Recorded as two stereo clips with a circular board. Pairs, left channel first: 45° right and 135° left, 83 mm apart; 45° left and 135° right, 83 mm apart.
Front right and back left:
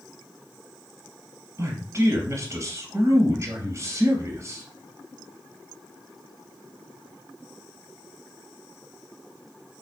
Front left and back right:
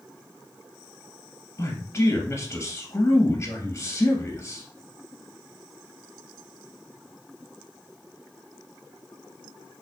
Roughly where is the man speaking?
Left.